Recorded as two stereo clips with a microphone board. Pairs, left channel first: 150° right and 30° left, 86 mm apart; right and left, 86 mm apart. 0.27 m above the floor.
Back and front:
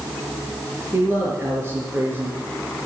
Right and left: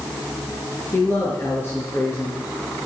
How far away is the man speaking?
About 5 m.